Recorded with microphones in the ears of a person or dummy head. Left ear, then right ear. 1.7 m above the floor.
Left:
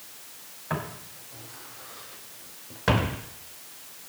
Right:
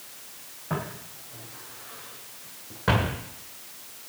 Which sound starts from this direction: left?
Footsteps, at 0.7 s.